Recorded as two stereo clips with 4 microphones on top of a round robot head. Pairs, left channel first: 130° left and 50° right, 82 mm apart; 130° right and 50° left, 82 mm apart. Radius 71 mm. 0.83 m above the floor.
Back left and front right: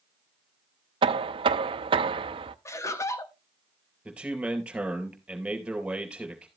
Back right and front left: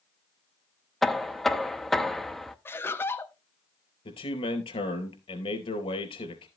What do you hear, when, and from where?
1.0 s knocking: 40° right, 0.6 m
2.6 s laughter: 175° left, 1.5 m
4.0 s a man speaking: 130° right, 4 m